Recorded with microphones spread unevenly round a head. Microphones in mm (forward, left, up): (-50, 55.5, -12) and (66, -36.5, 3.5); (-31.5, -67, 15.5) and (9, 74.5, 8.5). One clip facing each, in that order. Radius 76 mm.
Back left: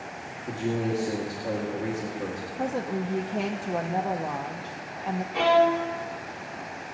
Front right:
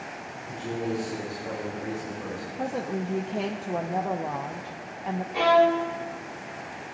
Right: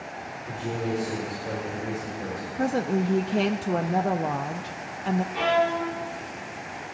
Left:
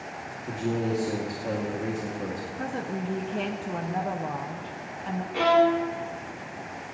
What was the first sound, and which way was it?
A man speaking, 110° left.